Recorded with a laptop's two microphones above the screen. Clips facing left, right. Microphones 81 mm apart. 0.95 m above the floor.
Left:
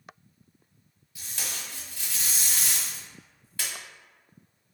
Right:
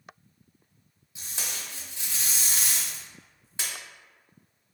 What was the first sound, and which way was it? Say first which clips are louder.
Tape being pulled: even; 25° right (ahead or behind).